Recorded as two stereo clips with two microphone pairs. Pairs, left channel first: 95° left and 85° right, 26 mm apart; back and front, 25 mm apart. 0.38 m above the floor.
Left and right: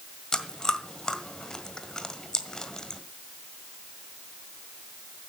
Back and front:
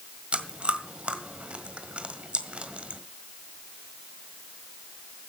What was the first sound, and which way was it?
Chewing, 30° left.